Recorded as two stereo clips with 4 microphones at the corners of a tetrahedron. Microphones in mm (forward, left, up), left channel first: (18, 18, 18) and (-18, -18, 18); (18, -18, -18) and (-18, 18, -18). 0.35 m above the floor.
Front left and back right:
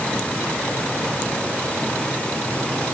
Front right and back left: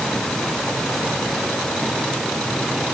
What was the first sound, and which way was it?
Only background noise.